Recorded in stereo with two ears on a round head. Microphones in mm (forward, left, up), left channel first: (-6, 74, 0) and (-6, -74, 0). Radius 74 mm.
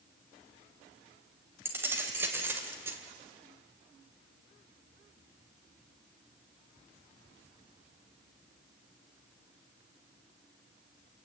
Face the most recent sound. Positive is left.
turn(degrees=-15)  # may be behind; listen again after turning